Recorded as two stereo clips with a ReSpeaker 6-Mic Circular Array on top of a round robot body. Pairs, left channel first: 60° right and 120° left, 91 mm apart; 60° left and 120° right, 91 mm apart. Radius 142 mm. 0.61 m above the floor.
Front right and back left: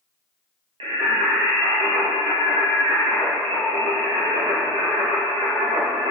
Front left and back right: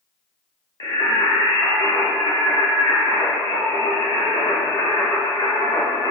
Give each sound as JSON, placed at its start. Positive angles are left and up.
{"t": 0.8, "sound": "singing", "azimuth_deg": 115, "distance_m": 0.7}